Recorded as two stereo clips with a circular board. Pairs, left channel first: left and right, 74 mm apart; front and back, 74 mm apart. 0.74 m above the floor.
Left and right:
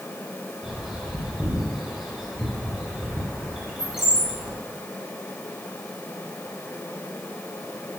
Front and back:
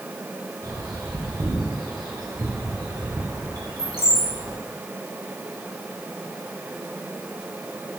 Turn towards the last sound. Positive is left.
turn(degrees=-170)